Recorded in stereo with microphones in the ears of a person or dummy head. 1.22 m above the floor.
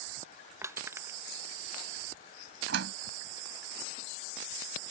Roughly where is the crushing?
Centre.